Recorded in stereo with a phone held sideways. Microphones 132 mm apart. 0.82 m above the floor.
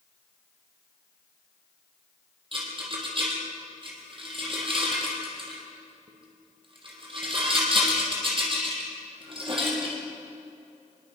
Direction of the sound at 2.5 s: 40° right (ahead or behind).